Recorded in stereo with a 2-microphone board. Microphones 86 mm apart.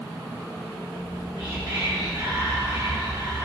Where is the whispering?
40° right (ahead or behind), 1.4 m.